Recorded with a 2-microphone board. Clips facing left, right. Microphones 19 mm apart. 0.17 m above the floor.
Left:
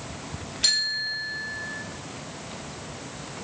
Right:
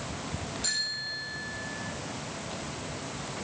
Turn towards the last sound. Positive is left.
turn(degrees=55)  # may be behind; listen again after turning